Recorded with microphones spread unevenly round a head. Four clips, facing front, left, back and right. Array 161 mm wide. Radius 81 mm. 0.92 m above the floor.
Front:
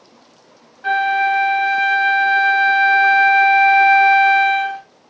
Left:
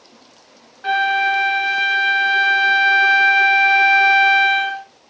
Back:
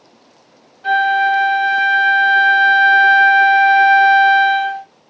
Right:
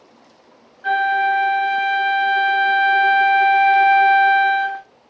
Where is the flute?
45° left, 1.7 m.